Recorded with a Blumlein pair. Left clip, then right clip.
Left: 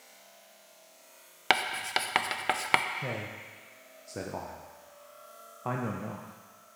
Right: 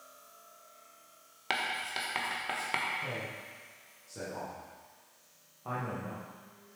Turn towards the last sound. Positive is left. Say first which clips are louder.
# left 1 dB
turn(degrees=30)